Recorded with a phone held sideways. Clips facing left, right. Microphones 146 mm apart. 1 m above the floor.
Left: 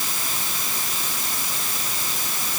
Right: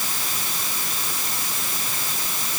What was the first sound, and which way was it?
Only background noise.